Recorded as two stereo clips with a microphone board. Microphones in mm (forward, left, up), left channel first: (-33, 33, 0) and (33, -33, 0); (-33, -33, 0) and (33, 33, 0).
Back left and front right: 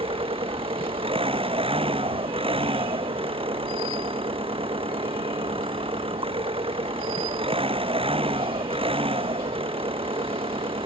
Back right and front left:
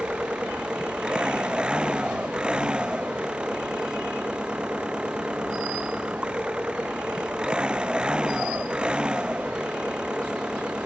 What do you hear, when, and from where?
0.0 s an engine running: 35° right